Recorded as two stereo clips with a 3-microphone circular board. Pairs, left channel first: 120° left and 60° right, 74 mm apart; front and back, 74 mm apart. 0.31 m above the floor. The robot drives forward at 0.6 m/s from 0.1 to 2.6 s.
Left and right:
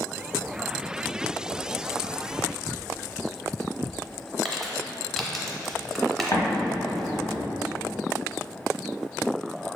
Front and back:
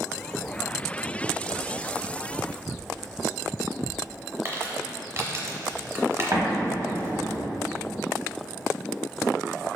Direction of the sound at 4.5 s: 155° right.